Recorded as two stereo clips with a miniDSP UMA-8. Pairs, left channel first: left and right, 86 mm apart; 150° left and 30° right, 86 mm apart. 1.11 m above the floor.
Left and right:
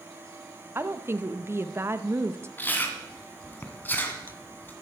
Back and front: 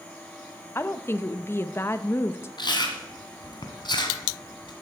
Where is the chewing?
155° left, 2 m.